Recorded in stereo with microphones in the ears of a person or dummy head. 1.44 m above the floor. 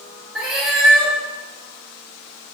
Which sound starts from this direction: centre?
A cat meowing, at 0.3 s.